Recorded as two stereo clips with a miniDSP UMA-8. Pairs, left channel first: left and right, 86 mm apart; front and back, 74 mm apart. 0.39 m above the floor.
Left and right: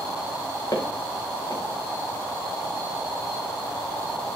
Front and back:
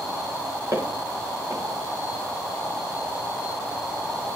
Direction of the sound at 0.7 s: 135° left.